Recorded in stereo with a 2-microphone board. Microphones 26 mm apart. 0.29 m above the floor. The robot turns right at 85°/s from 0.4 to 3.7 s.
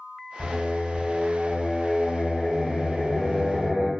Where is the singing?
70° right, 1.7 m; by 3.9 s 150° right, 1.7 m.